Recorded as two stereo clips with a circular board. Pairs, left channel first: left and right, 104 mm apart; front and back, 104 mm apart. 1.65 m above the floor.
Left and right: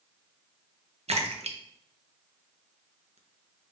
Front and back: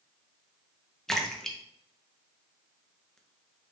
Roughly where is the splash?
Right.